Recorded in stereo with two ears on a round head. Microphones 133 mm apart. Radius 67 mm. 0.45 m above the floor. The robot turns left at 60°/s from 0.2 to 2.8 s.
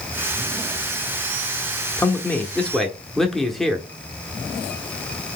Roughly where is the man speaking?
Centre.